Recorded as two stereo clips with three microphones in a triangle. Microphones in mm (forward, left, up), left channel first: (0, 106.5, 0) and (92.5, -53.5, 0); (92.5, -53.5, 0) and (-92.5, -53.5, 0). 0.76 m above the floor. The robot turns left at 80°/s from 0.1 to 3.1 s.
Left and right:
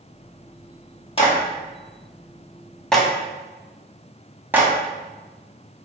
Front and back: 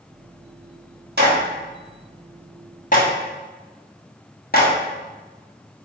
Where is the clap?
175° left, 1.0 m; by 4.7 s 20° left, 1.0 m.